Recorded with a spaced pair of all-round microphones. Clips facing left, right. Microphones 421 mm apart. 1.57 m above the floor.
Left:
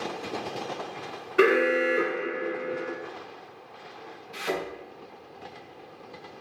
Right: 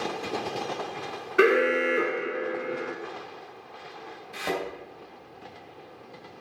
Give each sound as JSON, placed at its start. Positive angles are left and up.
{"t": 1.4, "sound": "an alarm", "side_deg": 0, "distance_m": 1.1}
{"t": 4.3, "sound": "a thud", "side_deg": -70, "distance_m": 3.5}